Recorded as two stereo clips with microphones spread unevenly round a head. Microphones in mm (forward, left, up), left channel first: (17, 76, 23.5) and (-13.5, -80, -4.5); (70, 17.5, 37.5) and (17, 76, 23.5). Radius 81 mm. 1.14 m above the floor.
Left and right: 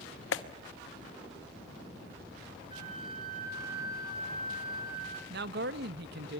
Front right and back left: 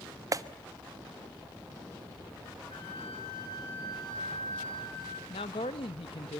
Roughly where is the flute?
Ahead right.